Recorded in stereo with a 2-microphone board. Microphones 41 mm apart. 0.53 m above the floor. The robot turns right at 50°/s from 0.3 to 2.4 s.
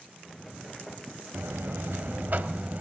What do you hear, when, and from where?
1.3 s a buzzer: 100° right, 1.0 m; by 2.8 s 45° right, 1.0 m